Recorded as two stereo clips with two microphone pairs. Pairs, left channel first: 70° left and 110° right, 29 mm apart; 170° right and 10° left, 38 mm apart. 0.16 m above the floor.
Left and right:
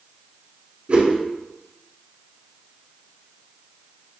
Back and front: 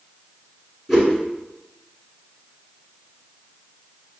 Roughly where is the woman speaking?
No woman speaking in this recording.